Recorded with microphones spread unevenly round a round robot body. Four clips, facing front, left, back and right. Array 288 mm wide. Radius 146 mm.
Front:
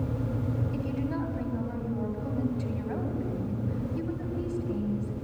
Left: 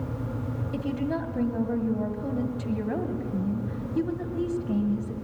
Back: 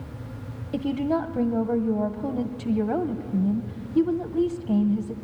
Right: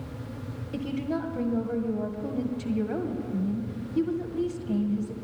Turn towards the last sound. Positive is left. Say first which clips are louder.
# even, back 12 dB
turn(degrees=170)